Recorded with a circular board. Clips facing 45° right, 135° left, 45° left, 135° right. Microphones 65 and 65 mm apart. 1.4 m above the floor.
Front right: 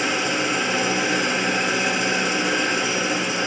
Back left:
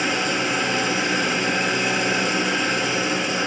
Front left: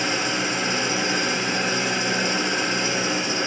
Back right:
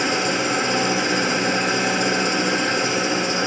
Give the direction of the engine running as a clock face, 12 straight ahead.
4 o'clock.